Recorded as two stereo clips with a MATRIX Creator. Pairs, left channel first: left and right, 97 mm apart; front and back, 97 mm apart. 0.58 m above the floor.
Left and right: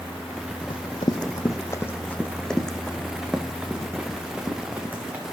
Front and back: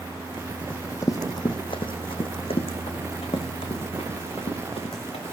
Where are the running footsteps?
70° left, 1.4 m; by 5.2 s 20° right, 4 m.